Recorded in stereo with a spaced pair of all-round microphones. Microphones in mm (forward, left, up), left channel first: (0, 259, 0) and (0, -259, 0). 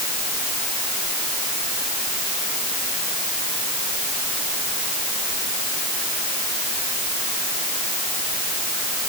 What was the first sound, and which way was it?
Only background noise.